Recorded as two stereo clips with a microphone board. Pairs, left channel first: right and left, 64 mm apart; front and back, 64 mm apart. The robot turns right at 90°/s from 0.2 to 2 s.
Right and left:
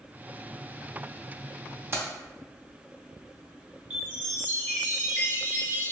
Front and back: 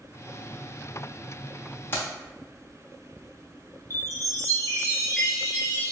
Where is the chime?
150° left, 1.6 m.